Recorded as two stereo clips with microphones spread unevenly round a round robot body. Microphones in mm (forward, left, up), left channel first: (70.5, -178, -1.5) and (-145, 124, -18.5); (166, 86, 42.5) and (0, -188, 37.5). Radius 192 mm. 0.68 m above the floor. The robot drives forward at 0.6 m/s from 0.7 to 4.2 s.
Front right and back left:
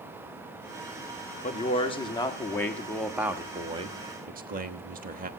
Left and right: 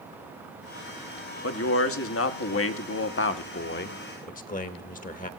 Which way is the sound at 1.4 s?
20° left.